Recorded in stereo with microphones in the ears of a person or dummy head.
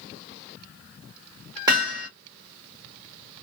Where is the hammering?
20° right (ahead or behind), 1.4 m.